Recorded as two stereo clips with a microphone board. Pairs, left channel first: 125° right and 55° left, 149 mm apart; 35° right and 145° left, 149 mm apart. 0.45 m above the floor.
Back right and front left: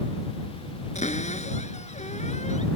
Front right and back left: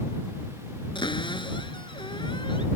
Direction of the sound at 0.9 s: 90° right.